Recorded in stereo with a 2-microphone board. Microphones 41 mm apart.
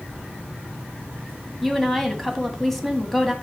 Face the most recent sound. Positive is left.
turn(degrees=5)  # may be behind; listen again after turning